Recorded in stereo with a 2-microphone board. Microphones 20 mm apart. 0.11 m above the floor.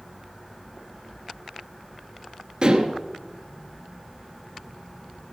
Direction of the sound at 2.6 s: 45° right (ahead or behind).